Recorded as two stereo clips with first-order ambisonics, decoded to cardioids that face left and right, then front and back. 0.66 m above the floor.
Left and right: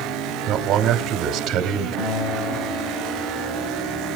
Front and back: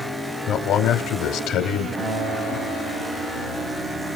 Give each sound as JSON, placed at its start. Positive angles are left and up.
{"t": 0.5, "sound": "a man speaking", "azimuth_deg": -40, "distance_m": 2.0}
{"t": 2.0, "sound": "a guitar", "azimuth_deg": 100, "distance_m": 9.0}